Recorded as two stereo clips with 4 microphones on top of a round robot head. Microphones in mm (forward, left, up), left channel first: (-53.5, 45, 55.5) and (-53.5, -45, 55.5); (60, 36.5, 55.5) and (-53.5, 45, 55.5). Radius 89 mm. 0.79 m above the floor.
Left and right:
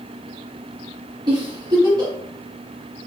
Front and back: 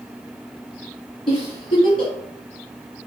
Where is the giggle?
50° right, 1.9 m.